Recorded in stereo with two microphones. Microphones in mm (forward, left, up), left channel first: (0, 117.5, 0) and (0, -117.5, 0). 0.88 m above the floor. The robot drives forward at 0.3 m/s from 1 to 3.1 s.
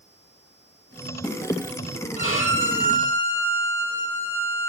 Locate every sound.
2.2 s a violin: 70° left (ahead or behind), 4 m; by 4.7 s 65° left (ahead or behind), 4 m